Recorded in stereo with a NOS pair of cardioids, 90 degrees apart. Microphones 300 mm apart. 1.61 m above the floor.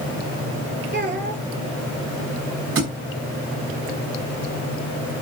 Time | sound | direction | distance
0.9 | a child speaking | 35° right | 5.5 m
2.8 | a thud | 45° right | 5 m